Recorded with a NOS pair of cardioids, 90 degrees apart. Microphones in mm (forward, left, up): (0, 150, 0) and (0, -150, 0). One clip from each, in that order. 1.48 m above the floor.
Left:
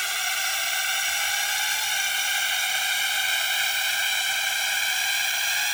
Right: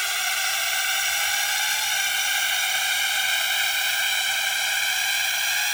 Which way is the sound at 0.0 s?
10° right.